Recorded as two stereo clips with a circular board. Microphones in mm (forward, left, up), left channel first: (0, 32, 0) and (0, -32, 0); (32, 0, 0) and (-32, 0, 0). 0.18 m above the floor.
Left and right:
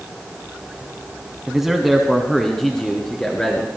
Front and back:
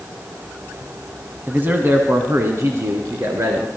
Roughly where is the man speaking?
Behind.